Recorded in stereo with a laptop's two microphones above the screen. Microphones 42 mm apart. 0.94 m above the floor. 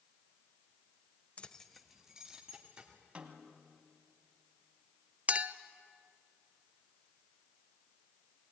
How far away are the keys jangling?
About 0.6 m.